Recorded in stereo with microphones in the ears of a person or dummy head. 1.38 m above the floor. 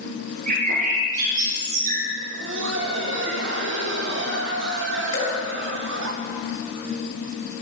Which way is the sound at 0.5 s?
50° right (ahead or behind).